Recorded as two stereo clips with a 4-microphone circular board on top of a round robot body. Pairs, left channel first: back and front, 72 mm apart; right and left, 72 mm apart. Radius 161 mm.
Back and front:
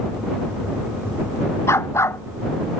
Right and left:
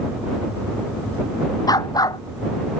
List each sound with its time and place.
1.7 s a dog barking: 125° right